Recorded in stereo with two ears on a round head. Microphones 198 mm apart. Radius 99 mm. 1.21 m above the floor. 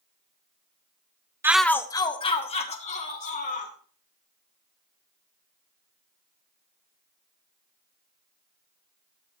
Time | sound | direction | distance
1.4 | a shout | 10° right (ahead or behind) | 0.8 m